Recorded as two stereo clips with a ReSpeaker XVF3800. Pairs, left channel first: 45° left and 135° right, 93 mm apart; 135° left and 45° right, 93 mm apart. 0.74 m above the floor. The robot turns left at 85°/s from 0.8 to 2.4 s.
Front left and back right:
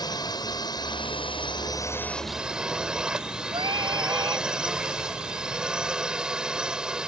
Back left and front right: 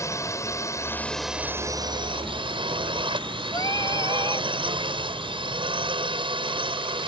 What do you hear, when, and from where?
0.0 s a drone: 80° left; by 7.1 s 55° right
3.5 s singing: 175° right